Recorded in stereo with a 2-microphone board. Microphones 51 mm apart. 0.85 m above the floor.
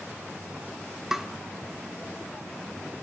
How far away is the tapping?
About 1.1 m.